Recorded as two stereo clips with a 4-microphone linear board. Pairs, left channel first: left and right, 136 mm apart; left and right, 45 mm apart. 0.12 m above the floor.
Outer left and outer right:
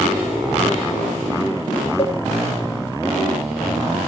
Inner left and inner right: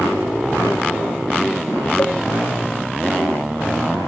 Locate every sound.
2.0 s a cowbell: 50° left (ahead or behind), 1.8 m